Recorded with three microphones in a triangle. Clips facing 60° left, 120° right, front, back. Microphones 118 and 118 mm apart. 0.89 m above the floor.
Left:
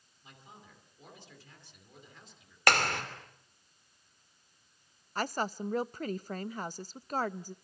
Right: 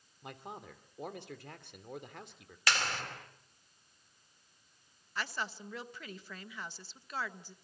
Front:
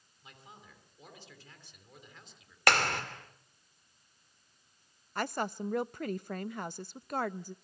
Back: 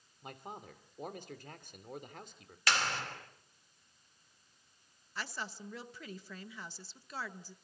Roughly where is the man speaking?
Behind right.